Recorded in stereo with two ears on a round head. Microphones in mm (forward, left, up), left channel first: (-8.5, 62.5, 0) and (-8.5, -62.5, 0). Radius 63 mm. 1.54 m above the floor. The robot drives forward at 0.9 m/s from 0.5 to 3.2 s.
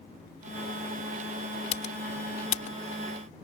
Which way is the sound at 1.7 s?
50° left (ahead or behind).